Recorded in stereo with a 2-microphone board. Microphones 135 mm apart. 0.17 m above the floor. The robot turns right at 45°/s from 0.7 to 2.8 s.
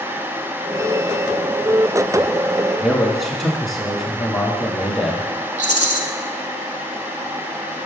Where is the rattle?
55° right (ahead or behind), 0.6 m.